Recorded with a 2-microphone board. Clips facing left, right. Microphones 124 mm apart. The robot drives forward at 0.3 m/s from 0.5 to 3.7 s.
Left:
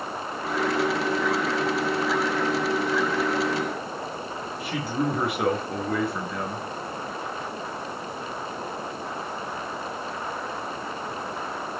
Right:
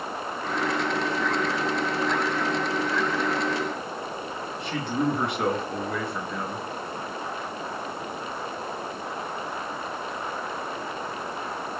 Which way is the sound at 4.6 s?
5° left (ahead or behind).